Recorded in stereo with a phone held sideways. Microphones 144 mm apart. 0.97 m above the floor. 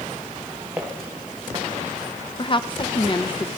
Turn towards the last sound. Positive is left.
turn(degrees=35)  # may be behind; listen again after turning